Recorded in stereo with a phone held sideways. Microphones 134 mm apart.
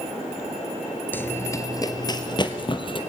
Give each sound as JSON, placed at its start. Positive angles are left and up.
{"t": 1.1, "sound": "running footsteps", "side_deg": 15, "distance_m": 1.4}